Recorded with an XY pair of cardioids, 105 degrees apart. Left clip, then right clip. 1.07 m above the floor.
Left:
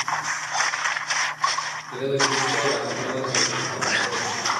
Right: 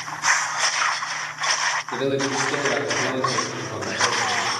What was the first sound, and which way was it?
A man speaking, 45° right.